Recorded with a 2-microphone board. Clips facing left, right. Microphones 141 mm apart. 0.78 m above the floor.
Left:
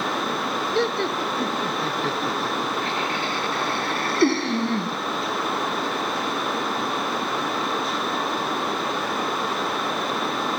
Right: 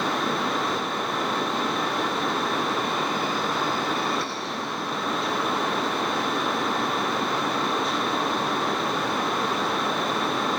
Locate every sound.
0.8 s laughter: 85° left; by 5.0 s 70° left (ahead or behind)